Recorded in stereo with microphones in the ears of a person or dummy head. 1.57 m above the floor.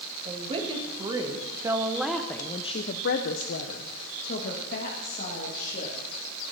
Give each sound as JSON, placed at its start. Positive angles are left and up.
{"t": 0.2, "sound": "a woman speaking", "side_deg": -35, "distance_m": 2.0}